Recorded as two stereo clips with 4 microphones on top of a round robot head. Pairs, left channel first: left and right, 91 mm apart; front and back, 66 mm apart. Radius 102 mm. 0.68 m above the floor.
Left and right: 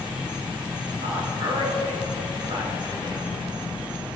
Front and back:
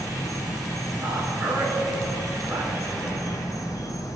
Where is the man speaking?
115° right, 2.5 m.